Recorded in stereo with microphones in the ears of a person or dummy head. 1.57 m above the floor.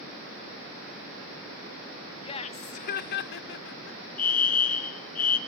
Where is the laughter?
35° left (ahead or behind), 1.0 m; by 4.0 s 70° left (ahead or behind), 1.4 m.